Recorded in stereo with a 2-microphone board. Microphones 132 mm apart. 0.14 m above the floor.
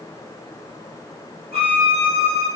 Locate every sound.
1.5 s a violin: 50° right (ahead or behind), 4.5 m